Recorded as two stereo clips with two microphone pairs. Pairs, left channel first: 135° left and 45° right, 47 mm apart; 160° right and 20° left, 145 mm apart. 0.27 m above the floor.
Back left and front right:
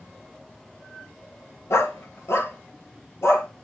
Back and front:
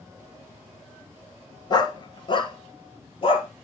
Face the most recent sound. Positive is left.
turn(degrees=155)